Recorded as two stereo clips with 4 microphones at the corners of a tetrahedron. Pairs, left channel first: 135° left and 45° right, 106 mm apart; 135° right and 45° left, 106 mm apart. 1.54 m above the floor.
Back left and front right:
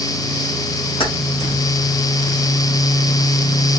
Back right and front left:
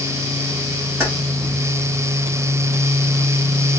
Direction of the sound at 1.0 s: 110° left.